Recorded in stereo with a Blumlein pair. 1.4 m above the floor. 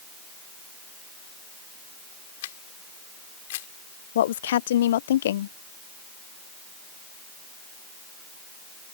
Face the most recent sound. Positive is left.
turn(degrees=60)